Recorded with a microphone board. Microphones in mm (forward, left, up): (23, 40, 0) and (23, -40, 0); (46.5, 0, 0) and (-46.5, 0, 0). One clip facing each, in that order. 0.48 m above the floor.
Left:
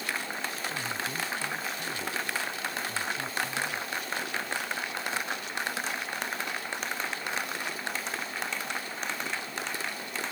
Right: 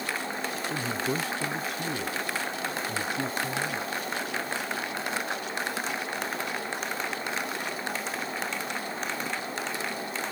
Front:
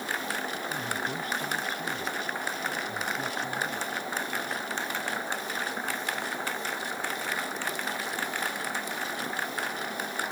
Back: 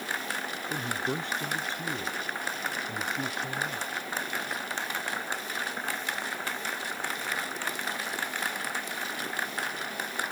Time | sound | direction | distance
0.7 | a man speaking | 115° right | ?